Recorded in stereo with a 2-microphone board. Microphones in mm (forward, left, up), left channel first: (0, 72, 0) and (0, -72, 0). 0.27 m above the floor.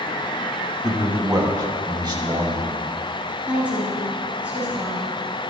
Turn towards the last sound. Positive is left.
turn(degrees=-10)  # may be behind; listen again after turning